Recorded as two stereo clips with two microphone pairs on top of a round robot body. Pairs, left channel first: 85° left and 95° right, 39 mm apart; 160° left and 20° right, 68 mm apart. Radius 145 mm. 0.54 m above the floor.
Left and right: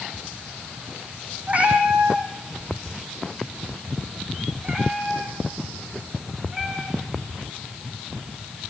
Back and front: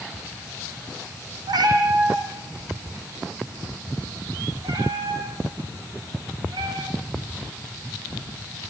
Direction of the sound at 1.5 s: 40° right.